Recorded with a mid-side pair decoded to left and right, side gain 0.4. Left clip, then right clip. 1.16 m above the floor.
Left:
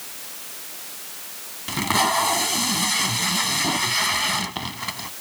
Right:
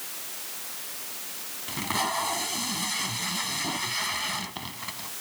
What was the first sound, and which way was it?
Tape being pulled, 50° left.